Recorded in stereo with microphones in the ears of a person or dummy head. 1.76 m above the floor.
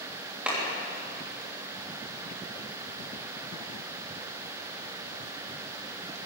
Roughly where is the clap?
Centre.